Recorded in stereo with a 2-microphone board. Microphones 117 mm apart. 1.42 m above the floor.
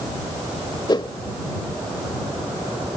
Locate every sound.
0.9 s a whoosh: 40° left (ahead or behind)